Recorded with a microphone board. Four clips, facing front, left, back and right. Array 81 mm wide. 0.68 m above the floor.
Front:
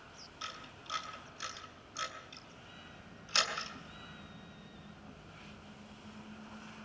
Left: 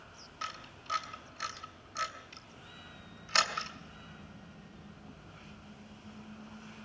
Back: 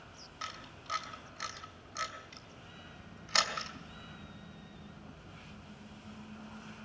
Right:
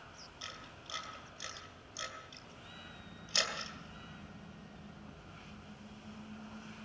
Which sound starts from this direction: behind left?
A camera shutter, at 0.4 s.